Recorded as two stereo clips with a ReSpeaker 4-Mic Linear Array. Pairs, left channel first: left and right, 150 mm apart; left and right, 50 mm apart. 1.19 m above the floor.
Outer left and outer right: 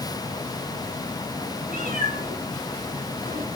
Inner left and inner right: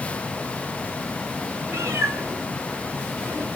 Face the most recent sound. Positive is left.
turn(degrees=-75)  # may be behind; listen again after turning